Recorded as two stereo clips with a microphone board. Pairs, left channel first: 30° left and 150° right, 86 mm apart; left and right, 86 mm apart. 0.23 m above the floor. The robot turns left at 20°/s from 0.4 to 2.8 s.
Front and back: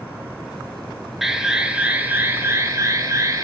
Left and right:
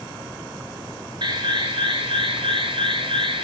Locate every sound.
1.2 s an alarm: 65° right, 2 m; by 3.4 s 95° right, 2 m